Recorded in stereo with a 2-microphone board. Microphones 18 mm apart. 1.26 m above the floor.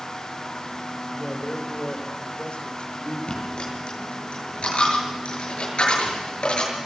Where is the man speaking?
70° left (ahead or behind), 4 m; by 3.2 s 85° left, 3.5 m.